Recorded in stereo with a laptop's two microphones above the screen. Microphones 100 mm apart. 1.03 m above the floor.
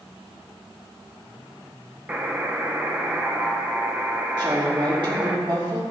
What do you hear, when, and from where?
2.1 s a buzzer: 20° right (ahead or behind), 0.7 m
4.4 s a woman speaking: 50° right (ahead or behind), 3 m